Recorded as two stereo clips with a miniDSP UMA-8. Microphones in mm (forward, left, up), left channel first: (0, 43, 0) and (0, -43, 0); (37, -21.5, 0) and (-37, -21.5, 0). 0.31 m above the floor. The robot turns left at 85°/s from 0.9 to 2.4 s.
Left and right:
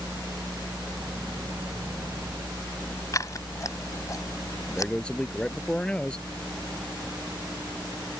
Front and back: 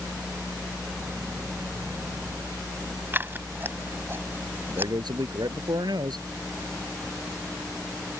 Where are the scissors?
125° left.